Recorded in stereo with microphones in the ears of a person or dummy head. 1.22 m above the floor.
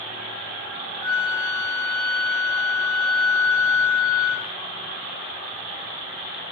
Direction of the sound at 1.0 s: 20° left (ahead or behind).